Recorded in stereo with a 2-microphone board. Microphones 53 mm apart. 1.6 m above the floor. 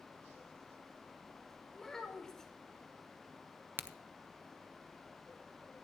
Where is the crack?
40° right (ahead or behind), 0.6 m.